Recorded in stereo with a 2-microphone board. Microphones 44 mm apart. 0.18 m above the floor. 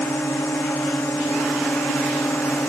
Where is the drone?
80° left.